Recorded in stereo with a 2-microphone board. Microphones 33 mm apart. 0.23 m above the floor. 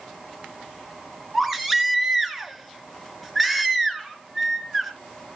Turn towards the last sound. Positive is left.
turn(degrees=-5)  # may be behind; listen again after turning